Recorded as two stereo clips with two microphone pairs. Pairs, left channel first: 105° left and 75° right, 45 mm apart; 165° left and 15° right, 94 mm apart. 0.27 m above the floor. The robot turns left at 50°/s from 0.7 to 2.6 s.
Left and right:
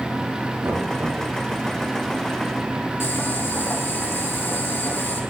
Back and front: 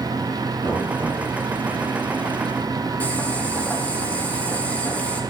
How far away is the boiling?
About 6 m.